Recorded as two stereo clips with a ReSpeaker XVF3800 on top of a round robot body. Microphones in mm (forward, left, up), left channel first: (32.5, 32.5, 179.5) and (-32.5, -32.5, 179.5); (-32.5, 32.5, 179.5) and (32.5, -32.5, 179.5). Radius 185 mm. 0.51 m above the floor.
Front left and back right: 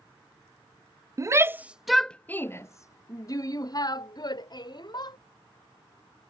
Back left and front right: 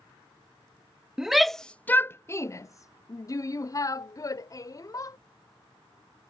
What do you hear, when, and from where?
1.2 s a shout: 125° right; by 5.2 s 80° left